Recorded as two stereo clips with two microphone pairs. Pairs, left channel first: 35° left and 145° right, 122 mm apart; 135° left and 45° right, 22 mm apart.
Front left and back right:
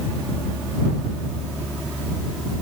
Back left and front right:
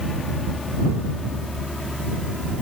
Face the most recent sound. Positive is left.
No sound to turn to.